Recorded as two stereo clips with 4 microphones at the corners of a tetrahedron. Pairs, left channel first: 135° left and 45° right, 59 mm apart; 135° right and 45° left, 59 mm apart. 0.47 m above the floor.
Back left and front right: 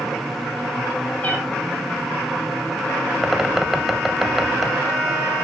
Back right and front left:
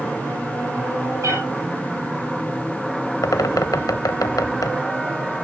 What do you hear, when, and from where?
1.2 s a cat meowing: 75° left, 5 m
3.2 s a bird: 130° right, 0.8 m